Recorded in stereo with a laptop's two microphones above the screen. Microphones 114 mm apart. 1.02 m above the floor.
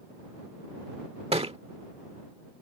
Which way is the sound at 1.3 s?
65° right (ahead or behind).